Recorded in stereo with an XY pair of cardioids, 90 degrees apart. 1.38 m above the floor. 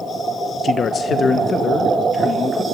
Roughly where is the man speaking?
Ahead left.